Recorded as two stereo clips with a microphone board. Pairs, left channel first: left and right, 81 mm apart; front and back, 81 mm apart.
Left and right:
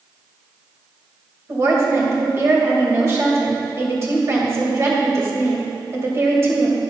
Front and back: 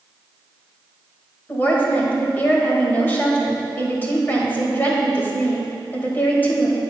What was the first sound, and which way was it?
A woman speaking, 55° right.